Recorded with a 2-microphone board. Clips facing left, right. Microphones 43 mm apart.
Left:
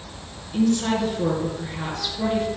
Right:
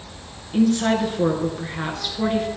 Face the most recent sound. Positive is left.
turn(degrees=-35)  # may be behind; listen again after turning